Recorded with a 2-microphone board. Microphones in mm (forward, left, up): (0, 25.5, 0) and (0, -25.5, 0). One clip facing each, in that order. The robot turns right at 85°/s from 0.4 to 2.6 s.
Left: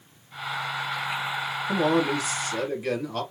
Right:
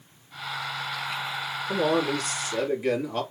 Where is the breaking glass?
No breaking glass in this recording.